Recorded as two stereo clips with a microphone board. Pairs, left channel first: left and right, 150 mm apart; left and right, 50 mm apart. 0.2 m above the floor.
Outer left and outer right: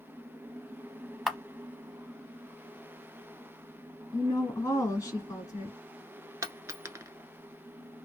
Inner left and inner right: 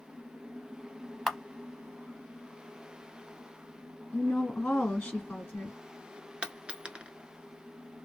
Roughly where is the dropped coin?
Right.